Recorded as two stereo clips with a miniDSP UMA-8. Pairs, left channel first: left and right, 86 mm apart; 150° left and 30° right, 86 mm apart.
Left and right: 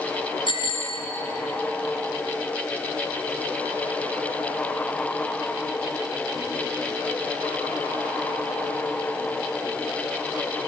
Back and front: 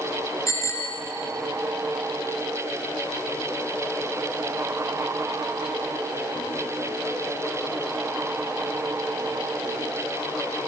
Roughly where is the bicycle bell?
Left.